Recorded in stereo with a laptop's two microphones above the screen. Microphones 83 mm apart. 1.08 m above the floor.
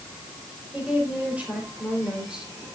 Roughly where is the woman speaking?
Centre.